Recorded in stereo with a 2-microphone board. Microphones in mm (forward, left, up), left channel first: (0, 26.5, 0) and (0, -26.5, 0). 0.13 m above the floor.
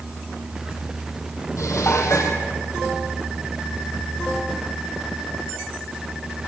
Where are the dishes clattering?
70° left (ahead or behind), 3 m.